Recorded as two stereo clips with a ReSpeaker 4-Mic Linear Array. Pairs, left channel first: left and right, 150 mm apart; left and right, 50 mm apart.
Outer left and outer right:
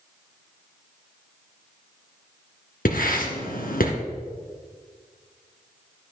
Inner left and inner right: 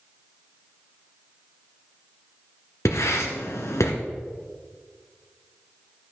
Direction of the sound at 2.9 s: 85° left.